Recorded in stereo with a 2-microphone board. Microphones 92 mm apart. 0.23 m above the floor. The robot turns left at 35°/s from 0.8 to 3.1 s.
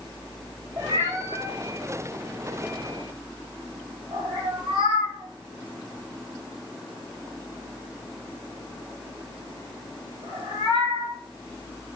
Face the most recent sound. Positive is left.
turn(degrees=-55)  # may be behind; listen again after turning